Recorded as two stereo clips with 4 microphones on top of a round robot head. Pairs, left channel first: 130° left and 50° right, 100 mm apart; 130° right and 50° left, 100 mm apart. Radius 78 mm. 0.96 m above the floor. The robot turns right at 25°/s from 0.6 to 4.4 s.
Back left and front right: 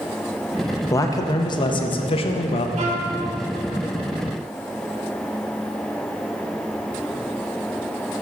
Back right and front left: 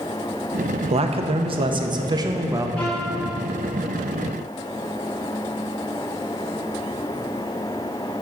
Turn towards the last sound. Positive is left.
turn(degrees=-10)